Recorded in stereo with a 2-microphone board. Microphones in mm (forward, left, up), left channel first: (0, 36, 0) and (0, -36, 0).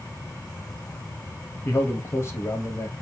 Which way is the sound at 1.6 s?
35° left (ahead or behind).